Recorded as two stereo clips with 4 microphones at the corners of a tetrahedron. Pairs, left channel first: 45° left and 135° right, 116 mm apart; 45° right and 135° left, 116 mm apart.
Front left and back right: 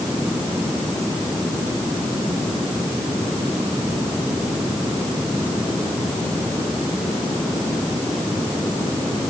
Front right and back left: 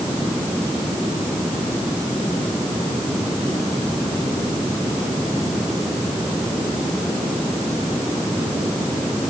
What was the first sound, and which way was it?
Only background noise.